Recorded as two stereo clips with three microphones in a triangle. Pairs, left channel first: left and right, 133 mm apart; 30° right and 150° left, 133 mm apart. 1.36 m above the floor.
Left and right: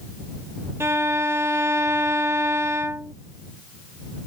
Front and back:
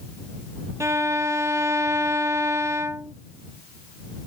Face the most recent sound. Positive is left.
turn(degrees=-150)